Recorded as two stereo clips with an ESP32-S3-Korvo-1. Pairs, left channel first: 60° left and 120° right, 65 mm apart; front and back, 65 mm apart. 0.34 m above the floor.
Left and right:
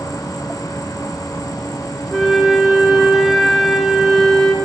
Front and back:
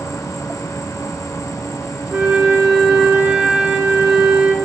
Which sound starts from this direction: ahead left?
An insect, at 0.0 s.